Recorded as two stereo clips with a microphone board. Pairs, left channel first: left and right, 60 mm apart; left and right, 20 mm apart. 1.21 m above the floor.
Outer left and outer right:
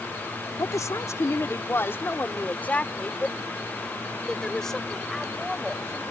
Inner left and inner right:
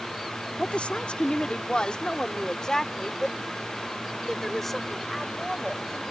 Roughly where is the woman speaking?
Left.